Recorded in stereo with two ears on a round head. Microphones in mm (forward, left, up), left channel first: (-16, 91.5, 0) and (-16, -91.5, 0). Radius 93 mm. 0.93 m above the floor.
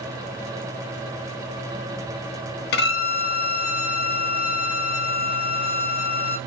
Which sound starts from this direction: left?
A violin, at 2.7 s.